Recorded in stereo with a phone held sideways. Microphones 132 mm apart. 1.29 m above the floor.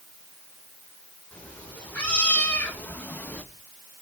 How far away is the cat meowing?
About 2.5 m.